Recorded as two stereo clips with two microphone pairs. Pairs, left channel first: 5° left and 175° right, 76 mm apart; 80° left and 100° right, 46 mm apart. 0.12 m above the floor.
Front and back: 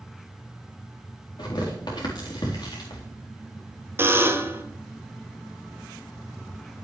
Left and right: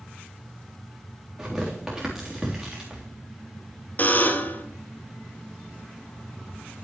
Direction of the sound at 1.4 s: 20° right.